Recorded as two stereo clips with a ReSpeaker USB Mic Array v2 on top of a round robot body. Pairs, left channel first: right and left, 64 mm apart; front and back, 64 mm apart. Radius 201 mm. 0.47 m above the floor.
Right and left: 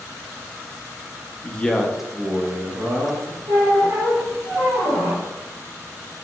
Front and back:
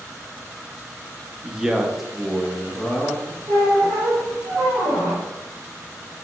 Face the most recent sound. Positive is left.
turn(degrees=115)